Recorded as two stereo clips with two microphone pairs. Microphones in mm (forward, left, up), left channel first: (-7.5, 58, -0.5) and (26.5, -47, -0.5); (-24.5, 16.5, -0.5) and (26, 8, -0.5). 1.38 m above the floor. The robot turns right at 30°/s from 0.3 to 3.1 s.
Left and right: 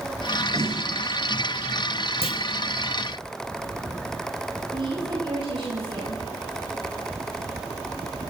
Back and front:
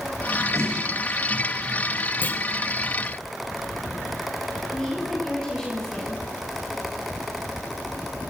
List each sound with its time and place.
0.5 s a snare drum: 10° right, 7.5 m; by 0.8 s straight ahead, 7.5 m
2.2 s a clunk: 120° left, 2 m; by 2.4 s 125° left, 2 m
4.7 s a woman speaking: 115° right, 9 m